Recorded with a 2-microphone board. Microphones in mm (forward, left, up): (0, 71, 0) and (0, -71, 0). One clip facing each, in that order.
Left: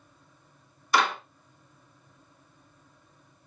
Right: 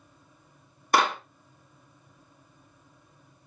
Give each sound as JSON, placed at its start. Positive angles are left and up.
{"t": 0.9, "sound": "a clap", "side_deg": -50, "distance_m": 1.2}